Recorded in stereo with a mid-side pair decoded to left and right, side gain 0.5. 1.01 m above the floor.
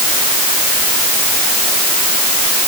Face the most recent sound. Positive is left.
No sound to turn to.